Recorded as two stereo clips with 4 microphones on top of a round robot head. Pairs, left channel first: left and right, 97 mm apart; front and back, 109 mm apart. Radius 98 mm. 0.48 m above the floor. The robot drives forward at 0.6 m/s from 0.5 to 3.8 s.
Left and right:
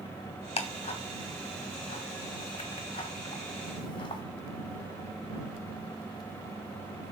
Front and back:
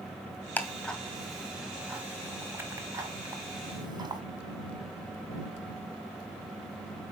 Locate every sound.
0.6 s ticking: 80° left, 1.9 m; by 4.2 s 130° left, 2.5 m